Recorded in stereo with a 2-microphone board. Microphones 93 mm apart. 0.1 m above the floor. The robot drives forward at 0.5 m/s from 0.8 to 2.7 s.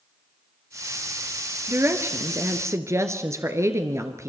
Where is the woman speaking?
25° right (ahead or behind), 2 m; by 4.3 s 30° right (ahead or behind), 1.9 m.